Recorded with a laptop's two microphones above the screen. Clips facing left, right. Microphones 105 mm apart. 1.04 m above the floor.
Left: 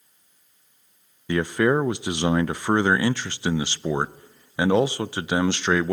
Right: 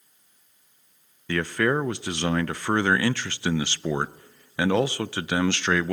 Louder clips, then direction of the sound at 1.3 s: Left 3 dB; 20° left (ahead or behind).